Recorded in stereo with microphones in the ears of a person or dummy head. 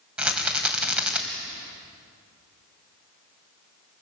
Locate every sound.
0.2 s a rattle: 10° right (ahead or behind), 3 m